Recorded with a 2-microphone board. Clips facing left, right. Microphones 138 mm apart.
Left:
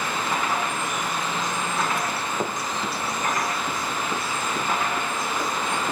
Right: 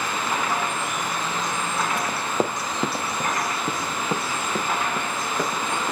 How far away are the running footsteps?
About 1.5 m.